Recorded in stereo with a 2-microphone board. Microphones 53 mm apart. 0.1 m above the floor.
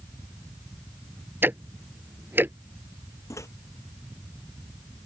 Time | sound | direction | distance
1.4 | ticking | 40° right (ahead or behind) | ?
3.3 | a microwave | 65° left (ahead or behind) | ?